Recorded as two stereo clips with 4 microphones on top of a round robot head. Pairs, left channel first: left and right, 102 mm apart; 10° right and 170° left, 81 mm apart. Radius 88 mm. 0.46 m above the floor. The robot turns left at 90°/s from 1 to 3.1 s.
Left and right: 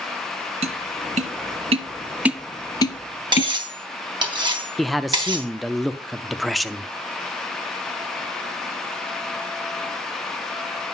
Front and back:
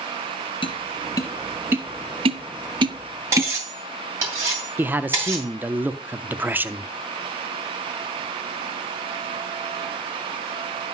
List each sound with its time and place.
0.6 s tapping: 55° right, 0.7 m; by 3.5 s 115° left, 0.7 m
3.3 s cutlery clinking: 135° right, 2.5 m
4.8 s a man speaking: straight behind, 0.7 m